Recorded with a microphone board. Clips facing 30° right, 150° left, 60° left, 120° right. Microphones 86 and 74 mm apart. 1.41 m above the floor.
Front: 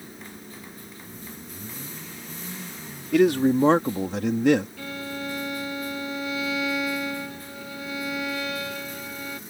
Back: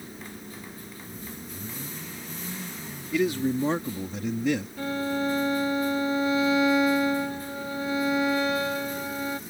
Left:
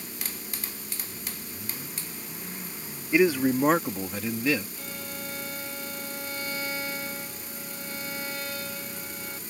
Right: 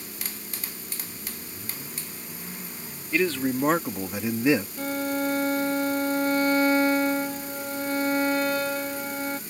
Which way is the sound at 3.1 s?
10° right.